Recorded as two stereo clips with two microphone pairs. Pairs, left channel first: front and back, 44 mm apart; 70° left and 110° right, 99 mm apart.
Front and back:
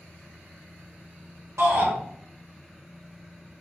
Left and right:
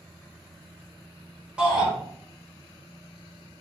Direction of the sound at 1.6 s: 170° left.